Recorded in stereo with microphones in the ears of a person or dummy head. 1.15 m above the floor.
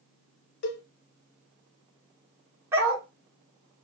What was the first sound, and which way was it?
A cowbell, 50° left (ahead or behind).